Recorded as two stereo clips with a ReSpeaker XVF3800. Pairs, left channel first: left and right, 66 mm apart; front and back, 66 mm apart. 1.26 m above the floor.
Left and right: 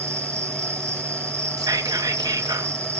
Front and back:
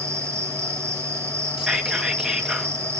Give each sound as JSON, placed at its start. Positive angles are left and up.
{"t": 0.0, "sound": "an insect", "azimuth_deg": -135, "distance_m": 1.7}
{"t": 1.6, "sound": "whispering", "azimuth_deg": -100, "distance_m": 2.5}